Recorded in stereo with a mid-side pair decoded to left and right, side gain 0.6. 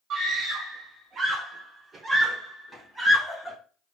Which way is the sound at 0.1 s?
55° right.